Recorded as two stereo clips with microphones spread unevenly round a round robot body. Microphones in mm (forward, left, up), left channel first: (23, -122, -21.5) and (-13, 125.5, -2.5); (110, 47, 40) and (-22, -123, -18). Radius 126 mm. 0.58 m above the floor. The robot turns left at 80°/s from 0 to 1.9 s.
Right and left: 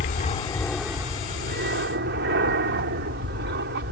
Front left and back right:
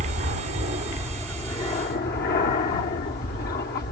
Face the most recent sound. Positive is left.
turn(degrees=100)